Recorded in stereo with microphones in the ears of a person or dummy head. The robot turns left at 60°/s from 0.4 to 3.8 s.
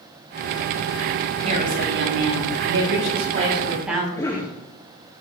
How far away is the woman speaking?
About 9.5 m.